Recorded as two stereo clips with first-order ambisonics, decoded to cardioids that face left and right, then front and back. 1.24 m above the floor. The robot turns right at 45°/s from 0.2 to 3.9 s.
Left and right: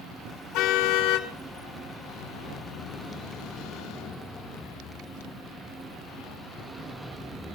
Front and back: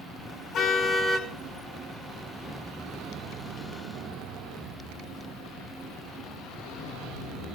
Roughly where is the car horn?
Ahead left.